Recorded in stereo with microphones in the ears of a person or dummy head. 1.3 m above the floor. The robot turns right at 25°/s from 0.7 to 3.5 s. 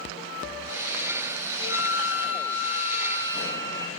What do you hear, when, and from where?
1.6 s a flute: 115° left, 6.5 m; by 4.0 s 160° left, 6.5 m